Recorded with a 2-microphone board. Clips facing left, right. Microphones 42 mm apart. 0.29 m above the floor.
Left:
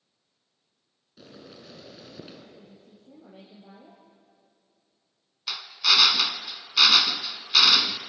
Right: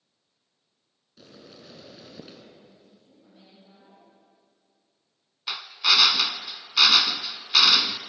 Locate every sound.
1.2 s boiling: 5° left (ahead or behind), 4 m
2.6 s a woman speaking: 80° left, 6.5 m
5.5 s a drill: 15° right (ahead or behind), 1.0 m